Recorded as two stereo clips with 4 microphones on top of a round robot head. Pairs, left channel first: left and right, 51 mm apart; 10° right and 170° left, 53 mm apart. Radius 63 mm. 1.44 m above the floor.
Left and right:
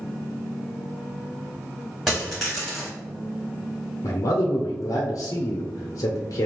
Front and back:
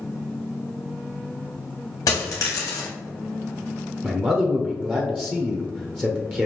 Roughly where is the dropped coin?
Ahead.